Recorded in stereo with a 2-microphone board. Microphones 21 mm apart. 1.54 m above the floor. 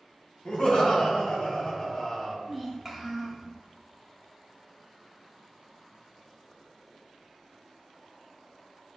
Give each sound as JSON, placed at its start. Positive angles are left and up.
{"t": 0.5, "sound": "laughter", "side_deg": 55, "distance_m": 1.5}
{"t": 2.5, "sound": "a child speaking", "side_deg": -15, "distance_m": 1.0}